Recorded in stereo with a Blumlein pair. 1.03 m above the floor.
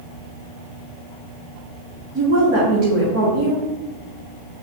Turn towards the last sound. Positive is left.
turn(degrees=-40)